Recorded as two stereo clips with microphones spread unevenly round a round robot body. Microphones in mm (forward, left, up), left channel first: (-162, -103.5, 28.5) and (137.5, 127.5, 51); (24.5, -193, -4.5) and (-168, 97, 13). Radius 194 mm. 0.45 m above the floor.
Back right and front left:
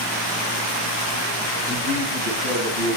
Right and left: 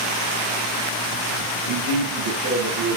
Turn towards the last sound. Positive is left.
turn(degrees=105)